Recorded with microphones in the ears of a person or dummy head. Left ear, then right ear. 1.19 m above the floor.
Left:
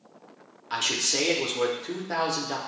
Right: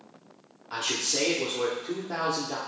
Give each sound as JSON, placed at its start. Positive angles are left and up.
{"t": 0.7, "sound": "a man speaking", "side_deg": 25, "distance_m": 0.8}